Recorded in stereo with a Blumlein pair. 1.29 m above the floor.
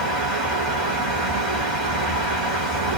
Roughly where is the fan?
Ahead.